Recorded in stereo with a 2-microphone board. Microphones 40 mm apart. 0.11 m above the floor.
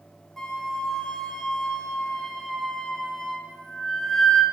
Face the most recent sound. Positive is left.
turn(degrees=10)  # may be behind; listen again after turning